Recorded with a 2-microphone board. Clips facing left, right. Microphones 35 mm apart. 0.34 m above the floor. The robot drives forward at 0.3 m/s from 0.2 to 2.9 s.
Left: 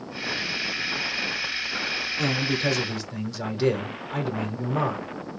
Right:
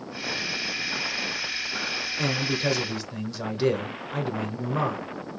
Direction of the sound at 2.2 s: 5° right (ahead or behind).